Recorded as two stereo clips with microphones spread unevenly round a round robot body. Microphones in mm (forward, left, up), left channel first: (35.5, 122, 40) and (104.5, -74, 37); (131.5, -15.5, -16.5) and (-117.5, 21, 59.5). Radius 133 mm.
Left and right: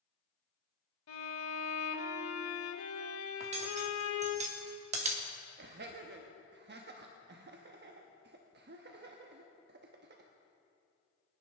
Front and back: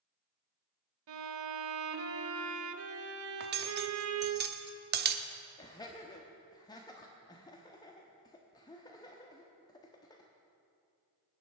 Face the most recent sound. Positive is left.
turn(degrees=-65)